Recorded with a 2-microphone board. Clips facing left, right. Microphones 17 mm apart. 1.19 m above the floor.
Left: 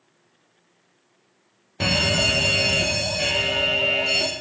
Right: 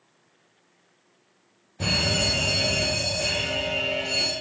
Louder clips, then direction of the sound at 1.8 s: Left 3 dB; 75° left (ahead or behind).